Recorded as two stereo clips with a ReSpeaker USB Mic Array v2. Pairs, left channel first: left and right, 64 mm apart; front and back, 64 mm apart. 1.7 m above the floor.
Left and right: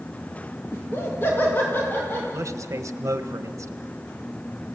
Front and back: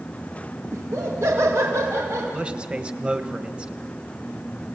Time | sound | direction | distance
0.7 | laughter | 140° left | 3 m
2.3 | a man speaking | 110° right | 1.4 m